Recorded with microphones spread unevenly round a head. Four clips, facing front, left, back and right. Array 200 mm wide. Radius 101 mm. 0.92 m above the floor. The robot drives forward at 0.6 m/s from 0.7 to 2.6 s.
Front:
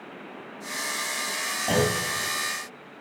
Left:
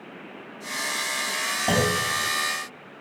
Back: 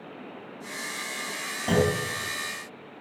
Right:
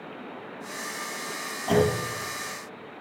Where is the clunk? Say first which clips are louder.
Right 2 dB, back 1 dB; 125° left, 4 m; by 2.0 s 130° left, 4.5 m.